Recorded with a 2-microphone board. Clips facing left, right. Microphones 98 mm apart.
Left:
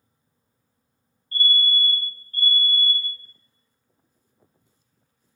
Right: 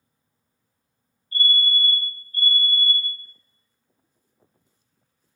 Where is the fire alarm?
60° left (ahead or behind), 1.6 m.